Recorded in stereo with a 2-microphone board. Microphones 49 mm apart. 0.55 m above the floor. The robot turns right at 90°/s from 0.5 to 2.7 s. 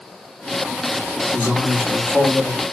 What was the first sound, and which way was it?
A man speaking, 110° left.